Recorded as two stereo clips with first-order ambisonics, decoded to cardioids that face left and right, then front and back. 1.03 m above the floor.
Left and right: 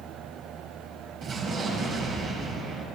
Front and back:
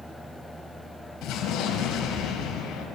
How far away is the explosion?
About 4 m.